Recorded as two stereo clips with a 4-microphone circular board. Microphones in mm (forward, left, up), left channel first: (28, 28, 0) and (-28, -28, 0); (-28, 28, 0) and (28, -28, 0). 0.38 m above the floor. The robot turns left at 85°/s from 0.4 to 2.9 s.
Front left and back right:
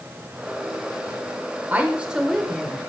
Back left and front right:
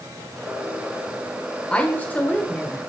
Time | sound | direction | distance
1.7 | a woman speaking | 165° right | 0.9 m